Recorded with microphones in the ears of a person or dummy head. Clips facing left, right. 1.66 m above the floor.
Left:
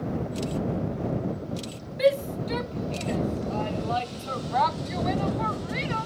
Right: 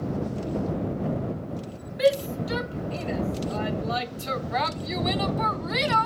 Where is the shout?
5° right (ahead or behind); by 6.1 s 65° right (ahead or behind).